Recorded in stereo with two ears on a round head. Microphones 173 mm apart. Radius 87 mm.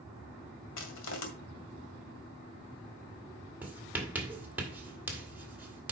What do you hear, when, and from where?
0.8 s crushing: 70° left (ahead or behind), 1.9 m
3.6 s writing: 10° right (ahead or behind), 1.9 m